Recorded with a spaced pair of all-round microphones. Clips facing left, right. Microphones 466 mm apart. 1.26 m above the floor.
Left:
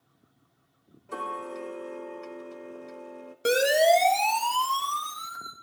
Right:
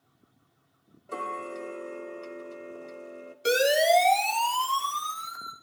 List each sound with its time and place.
1.1 s ticking: 5° left (ahead or behind), 1.0 m
3.5 s a siren: 65° left (ahead or behind), 2.5 m; by 5.5 s 50° left (ahead or behind), 3.5 m